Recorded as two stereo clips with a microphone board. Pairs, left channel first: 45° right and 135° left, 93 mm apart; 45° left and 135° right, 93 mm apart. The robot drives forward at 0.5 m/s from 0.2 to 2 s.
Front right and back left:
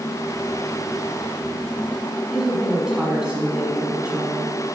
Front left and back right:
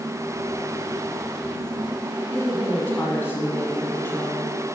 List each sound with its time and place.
2.3 s a woman speaking: 65° left, 1.1 m